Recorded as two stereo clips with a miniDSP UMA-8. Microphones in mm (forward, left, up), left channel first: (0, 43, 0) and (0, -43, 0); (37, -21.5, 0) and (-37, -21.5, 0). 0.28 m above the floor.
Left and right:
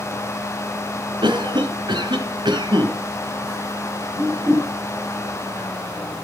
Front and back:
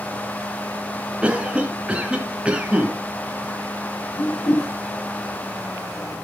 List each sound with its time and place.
1.2 s a cough: 105° right, 2.5 m
4.2 s a whoosh: 35° right, 5 m